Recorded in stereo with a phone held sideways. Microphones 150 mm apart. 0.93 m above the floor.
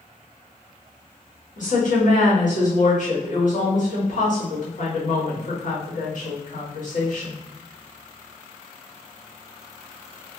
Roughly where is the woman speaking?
Left.